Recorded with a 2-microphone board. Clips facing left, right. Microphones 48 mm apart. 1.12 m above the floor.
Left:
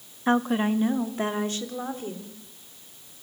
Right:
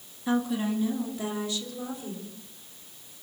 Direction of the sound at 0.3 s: 45° left (ahead or behind).